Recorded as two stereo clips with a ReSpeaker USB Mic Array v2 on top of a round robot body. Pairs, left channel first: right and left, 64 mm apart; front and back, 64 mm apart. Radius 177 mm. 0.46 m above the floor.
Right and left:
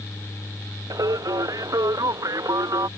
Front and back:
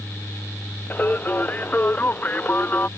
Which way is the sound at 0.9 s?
65° left.